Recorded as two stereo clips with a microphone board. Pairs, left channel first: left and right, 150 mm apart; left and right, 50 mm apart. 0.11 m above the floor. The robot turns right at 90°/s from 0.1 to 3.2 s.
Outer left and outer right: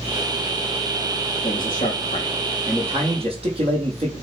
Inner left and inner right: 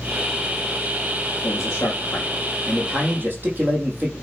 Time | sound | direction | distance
1.4 | a man speaking | 70° left | 3.5 m